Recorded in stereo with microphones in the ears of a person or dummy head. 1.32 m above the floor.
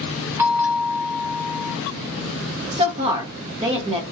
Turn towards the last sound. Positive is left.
turn(degrees=-35)  # may be behind; listen again after turning